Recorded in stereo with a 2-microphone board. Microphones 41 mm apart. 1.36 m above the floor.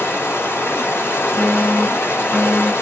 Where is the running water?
85° left, 1.3 m.